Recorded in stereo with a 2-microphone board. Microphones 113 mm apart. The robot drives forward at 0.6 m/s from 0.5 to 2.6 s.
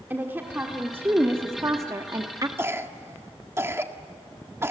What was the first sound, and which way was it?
A woman speaking, 20° right (ahead or behind).